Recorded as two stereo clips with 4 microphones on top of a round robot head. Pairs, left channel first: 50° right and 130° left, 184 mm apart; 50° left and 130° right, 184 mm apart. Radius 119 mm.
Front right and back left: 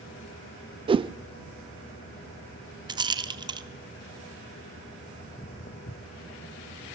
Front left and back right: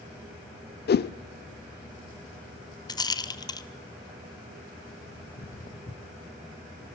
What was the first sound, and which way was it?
A whoosh, 70° left.